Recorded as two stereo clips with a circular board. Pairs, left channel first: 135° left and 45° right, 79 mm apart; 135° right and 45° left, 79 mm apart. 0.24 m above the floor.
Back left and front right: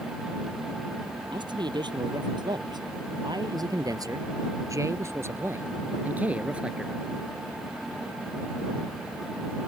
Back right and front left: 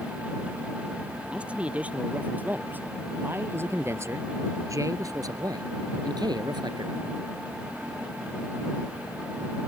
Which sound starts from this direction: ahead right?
A man speaking, at 1.3 s.